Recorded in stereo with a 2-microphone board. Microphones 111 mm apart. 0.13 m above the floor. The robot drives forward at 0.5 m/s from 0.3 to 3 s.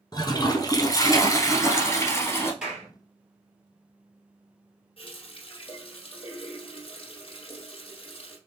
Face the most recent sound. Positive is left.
turn(degrees=55)  # may be behind; listen again after turning